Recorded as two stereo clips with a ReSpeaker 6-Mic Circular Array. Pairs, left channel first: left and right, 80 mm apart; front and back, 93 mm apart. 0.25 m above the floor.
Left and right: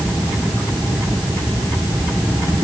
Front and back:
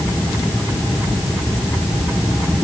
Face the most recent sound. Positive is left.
No sound to turn to.